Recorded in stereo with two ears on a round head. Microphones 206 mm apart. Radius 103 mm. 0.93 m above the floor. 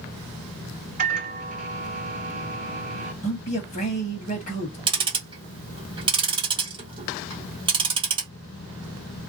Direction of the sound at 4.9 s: 20° right (ahead or behind).